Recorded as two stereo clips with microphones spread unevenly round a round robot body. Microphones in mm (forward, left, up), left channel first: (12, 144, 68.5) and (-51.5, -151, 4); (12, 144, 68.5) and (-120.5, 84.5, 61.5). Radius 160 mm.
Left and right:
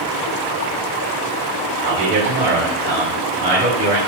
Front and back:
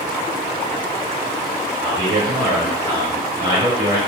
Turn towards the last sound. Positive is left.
turn(degrees=-125)